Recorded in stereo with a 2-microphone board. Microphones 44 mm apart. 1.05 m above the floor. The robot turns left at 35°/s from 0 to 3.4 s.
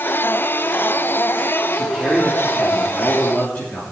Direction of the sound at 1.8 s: 170° right.